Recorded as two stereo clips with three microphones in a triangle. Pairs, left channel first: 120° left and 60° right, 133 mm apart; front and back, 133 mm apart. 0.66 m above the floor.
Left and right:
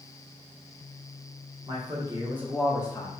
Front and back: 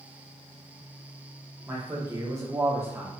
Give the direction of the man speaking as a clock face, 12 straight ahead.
4 o'clock.